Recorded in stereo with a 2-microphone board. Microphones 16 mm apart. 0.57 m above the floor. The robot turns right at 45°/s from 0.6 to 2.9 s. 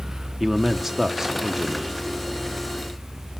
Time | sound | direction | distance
0.4 | a man speaking | 15° right (ahead or behind) | 0.6 m